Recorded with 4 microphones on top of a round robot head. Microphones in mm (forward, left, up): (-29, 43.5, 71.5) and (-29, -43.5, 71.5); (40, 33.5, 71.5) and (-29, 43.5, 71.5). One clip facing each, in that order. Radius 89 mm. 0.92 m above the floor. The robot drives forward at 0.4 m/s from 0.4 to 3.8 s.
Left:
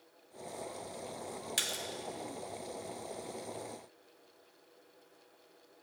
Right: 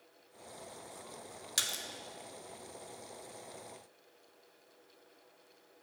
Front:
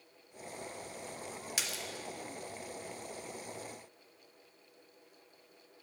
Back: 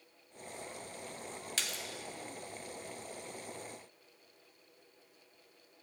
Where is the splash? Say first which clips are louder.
Left 2 dB, even; 65° right, 0.7 m; by 1.8 s 90° right, 0.6 m.